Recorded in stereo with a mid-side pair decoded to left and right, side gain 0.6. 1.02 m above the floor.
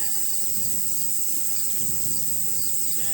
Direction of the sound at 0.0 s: 50° right.